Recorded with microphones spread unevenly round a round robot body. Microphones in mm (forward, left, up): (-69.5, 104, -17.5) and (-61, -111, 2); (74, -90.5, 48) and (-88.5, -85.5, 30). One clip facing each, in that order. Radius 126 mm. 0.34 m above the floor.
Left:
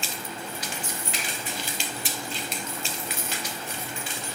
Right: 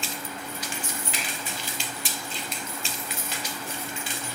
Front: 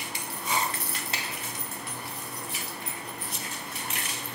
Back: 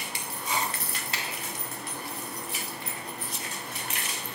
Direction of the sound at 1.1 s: 70° right.